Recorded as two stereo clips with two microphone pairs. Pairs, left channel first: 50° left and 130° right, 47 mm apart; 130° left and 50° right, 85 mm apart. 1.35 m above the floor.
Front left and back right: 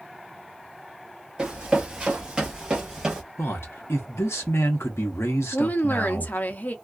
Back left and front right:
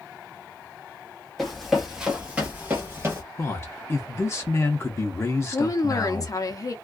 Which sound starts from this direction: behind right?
Running footsteps, at 1.4 s.